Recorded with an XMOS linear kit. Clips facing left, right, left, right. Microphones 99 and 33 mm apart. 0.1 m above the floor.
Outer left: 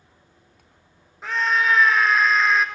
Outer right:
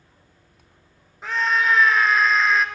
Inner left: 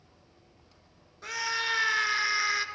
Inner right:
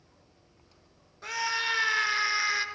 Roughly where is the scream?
Centre.